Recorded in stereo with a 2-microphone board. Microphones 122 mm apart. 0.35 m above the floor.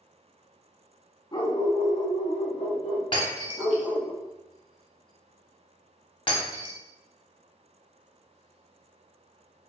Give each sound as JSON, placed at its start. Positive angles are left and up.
{"t": 1.3, "sound": "a dog barking", "side_deg": 35, "distance_m": 0.6}
{"t": 3.1, "sound": "breaking glass", "side_deg": 45, "distance_m": 0.8}